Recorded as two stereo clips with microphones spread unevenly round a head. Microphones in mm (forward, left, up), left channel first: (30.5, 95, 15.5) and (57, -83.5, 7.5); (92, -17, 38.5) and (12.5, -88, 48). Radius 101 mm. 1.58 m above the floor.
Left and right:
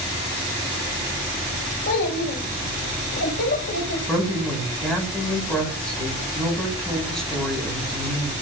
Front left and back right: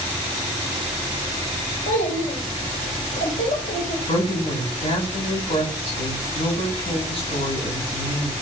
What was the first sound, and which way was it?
A child speaking, 75° left.